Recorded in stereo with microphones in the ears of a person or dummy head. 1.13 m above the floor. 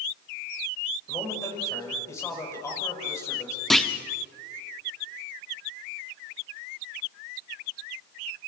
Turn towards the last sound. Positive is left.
turn(degrees=5)  # may be behind; listen again after turning